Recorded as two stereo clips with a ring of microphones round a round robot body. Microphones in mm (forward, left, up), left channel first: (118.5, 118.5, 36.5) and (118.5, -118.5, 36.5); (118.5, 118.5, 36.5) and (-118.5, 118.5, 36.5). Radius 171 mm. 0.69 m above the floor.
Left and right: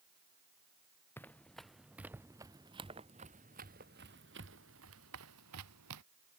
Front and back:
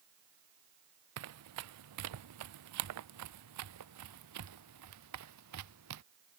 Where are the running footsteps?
175° left; by 6.0 s 135° right.